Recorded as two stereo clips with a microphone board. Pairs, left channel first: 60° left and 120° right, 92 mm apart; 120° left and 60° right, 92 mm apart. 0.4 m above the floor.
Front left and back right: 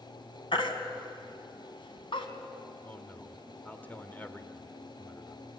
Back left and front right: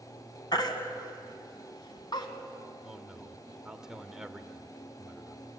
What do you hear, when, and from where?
0.5 s a baby crying: 80° left, 2.5 m
2.9 s a man speaking: 15° left, 1.4 m